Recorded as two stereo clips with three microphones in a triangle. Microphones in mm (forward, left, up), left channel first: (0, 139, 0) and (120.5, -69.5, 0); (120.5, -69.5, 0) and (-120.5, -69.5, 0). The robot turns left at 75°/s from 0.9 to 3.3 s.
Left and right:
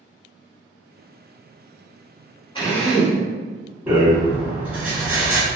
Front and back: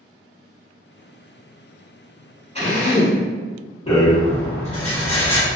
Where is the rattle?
15° left, 1.4 m.